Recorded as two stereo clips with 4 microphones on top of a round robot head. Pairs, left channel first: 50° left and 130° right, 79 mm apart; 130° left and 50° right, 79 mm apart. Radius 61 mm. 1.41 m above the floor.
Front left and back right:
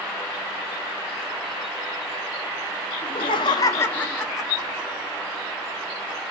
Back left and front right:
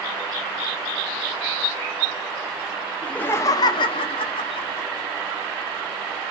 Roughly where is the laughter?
Ahead left.